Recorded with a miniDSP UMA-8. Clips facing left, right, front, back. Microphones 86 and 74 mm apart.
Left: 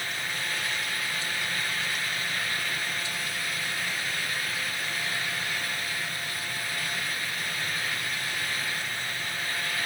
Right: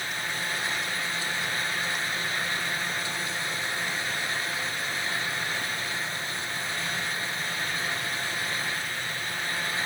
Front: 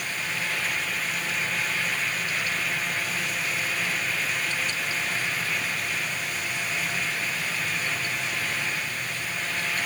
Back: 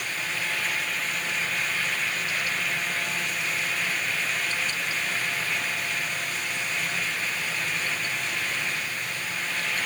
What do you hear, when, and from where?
Only background noise.